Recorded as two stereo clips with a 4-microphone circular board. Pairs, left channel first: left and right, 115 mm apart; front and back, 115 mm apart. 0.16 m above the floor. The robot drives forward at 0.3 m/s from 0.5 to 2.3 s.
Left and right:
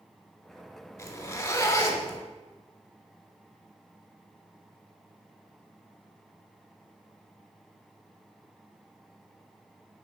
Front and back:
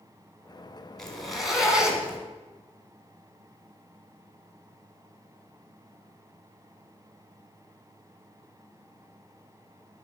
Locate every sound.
1.0 s a zipper: 75° left, 1.3 m; by 2.2 s 115° left, 1.3 m